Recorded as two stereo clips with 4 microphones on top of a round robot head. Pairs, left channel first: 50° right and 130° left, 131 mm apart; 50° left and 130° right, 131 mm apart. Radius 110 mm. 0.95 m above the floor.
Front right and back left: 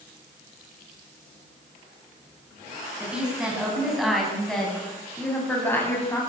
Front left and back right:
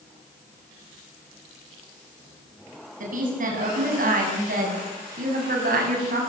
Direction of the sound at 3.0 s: 150° right.